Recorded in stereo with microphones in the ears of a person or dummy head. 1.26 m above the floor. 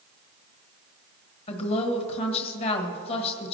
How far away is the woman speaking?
About 1.4 m.